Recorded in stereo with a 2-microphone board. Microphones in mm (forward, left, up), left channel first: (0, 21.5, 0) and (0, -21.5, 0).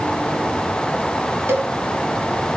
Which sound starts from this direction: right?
A cowbell, at 1.5 s.